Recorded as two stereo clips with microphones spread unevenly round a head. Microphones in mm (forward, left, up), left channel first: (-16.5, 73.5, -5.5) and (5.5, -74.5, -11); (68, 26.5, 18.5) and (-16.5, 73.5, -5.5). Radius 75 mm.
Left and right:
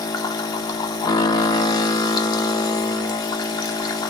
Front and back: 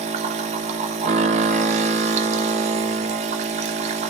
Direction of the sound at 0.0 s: 160° left.